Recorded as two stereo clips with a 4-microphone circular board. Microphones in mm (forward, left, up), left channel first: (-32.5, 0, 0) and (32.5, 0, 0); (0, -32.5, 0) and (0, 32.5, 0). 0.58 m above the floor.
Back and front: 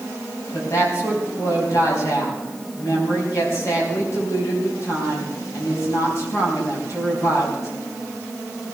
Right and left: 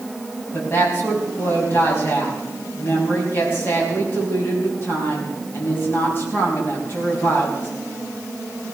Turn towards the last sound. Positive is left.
turn(degrees=-140)